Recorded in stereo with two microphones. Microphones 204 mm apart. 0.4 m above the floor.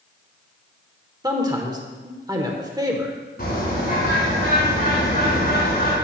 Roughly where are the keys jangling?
No keys jangling in this recording.